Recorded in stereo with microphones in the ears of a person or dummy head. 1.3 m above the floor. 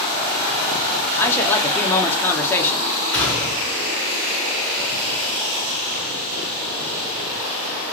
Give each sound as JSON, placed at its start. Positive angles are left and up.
{"t": 1.1, "sound": "a man speaking", "side_deg": 15, "distance_m": 1.1}
{"t": 3.1, "sound": "a gunshot", "side_deg": 15, "distance_m": 1.9}